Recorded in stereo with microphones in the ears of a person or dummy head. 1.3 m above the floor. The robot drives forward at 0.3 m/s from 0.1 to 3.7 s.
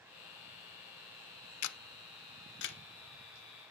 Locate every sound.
1.6 s a camera shutter: 85° left, 0.6 m; by 2.8 s 55° left (ahead or behind), 0.7 m